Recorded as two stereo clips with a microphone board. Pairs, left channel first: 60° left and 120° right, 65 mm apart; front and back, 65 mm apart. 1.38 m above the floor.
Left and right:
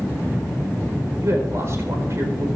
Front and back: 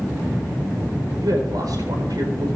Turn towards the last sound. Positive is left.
turn(degrees=-165)